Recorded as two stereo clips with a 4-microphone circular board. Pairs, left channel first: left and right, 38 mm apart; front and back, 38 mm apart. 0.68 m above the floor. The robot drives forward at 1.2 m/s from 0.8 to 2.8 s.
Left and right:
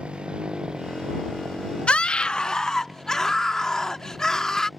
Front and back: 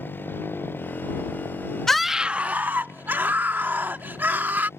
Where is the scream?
65° left; by 4.7 s 165° left.